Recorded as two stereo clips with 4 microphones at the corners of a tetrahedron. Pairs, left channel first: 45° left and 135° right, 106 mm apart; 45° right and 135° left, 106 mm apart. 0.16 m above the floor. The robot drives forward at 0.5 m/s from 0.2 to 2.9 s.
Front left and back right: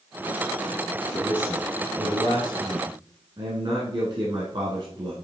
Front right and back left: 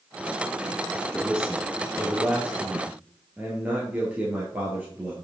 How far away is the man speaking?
About 1.4 m.